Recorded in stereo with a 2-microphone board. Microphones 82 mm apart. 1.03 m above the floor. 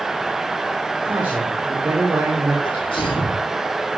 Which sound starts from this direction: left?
A sneeze, at 2.6 s.